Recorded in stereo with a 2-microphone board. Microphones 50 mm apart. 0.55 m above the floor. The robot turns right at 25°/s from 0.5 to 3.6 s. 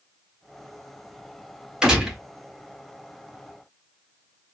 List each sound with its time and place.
1.8 s a gunshot: 10° right (ahead or behind), 1.6 m; by 2.2 s 5° right (ahead or behind), 1.6 m